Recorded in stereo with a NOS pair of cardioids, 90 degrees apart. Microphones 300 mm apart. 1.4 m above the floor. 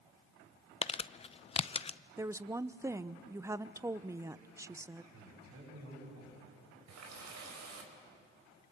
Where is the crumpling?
20° left, 0.6 m.